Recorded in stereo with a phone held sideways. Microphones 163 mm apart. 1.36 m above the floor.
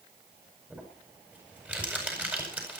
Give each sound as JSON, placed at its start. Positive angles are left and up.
{"t": 0.7, "sound": "crumpling", "side_deg": -10, "distance_m": 8.0}